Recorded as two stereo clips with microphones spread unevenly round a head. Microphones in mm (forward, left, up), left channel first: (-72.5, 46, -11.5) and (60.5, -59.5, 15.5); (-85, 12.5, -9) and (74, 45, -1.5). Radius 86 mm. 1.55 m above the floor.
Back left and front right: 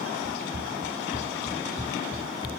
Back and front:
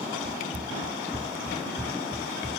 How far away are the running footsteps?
About 1.8 m.